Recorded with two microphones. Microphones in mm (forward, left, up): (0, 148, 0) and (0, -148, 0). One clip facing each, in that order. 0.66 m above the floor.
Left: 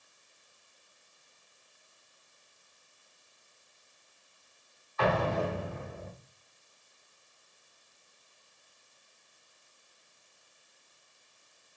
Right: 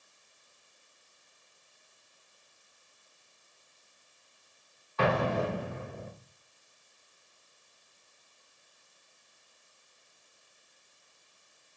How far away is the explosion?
About 2 m.